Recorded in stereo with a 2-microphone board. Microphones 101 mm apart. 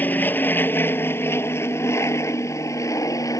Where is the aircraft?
20° left (ahead or behind); by 3.4 s 35° left (ahead or behind).